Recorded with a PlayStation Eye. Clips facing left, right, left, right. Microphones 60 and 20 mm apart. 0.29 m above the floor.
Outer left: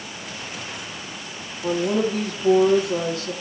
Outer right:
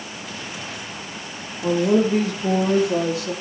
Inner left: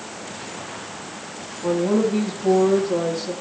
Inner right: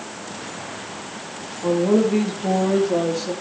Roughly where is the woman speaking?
Right.